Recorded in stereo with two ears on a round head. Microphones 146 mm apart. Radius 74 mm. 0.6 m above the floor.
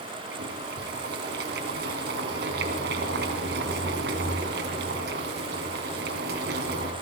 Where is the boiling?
75° right (ahead or behind), 2.5 m.